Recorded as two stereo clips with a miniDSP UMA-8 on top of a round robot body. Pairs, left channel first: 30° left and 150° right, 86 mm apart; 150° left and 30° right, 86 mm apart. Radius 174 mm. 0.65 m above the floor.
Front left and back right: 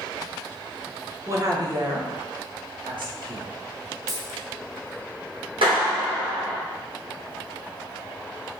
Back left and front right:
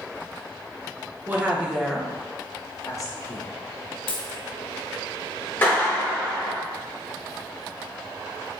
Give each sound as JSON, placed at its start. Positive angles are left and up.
{"t": 1.3, "sound": "a woman speaking", "azimuth_deg": -100, "distance_m": 2.0}
{"t": 4.1, "sound": "a dropped coin", "azimuth_deg": 155, "distance_m": 1.2}
{"t": 5.6, "sound": "a clap", "azimuth_deg": -145, "distance_m": 2.5}